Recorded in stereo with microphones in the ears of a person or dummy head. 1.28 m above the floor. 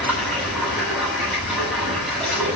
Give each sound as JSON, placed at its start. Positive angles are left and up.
{"t": 0.0, "sound": "running water", "side_deg": 0, "distance_m": 8.0}